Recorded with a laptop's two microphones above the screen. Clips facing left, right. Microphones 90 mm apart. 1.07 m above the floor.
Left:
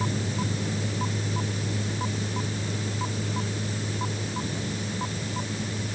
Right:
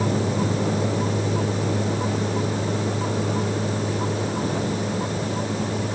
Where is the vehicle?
85° right; by 6.0 s 60° right (ahead or behind).